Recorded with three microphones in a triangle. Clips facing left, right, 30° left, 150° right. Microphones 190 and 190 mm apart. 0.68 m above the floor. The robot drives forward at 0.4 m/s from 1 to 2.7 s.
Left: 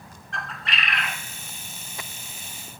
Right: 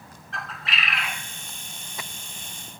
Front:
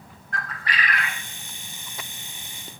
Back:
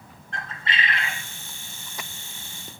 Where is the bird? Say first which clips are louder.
Left 1 dB, front 1 dB; straight behind, 0.5 m.